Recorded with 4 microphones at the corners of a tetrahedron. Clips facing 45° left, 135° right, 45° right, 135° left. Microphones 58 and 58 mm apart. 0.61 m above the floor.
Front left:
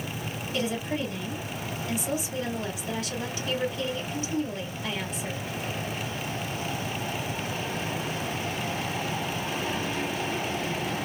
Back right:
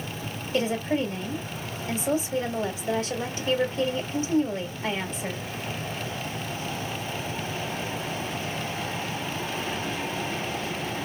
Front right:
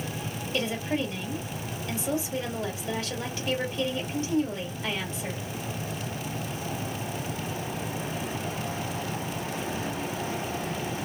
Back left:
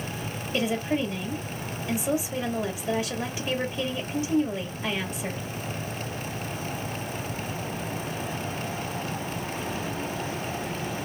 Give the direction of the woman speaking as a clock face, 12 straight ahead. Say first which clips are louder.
Back right 5 dB, back left 3 dB; 5 o'clock.